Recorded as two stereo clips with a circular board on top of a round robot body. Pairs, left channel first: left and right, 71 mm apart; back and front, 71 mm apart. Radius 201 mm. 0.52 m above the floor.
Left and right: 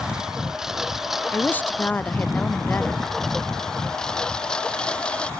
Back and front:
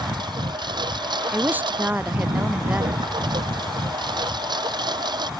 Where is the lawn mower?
10° right; by 5.4 s 15° left.